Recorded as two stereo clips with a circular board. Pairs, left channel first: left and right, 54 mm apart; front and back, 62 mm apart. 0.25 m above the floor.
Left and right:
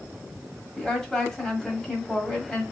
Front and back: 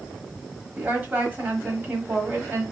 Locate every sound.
0.8 s a woman speaking: 160° left, 1.3 m